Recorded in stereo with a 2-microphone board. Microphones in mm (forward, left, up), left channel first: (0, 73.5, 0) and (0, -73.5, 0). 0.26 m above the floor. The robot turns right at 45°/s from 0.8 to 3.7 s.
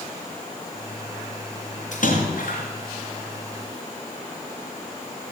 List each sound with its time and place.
1.9 s a splash: 60° left (ahead or behind), 3.5 m; by 2.6 s 65° left (ahead or behind), 3.5 m